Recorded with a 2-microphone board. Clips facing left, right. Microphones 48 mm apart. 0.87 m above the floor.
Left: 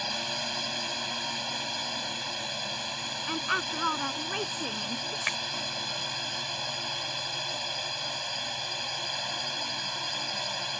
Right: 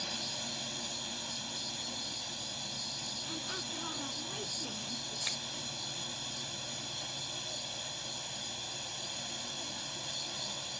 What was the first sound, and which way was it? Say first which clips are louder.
A drone: left 8 dB; 70° left (ahead or behind).